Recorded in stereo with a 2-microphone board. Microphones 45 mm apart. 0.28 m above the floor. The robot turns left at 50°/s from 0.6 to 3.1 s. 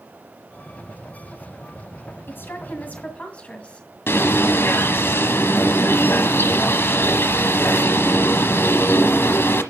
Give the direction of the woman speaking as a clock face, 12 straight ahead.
9 o'clock.